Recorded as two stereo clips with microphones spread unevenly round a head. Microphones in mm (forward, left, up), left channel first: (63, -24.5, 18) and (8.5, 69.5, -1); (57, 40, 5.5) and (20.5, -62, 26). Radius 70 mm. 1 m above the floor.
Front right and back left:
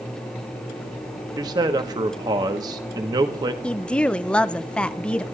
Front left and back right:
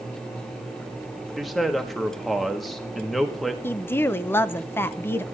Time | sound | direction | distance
1.4 | a man speaking | 150° left | 1.2 m
3.6 | a woman speaking | 30° left | 0.6 m